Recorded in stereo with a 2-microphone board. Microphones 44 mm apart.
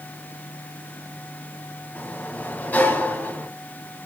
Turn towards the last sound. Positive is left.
turn(degrees=40)  # may be behind; listen again after turning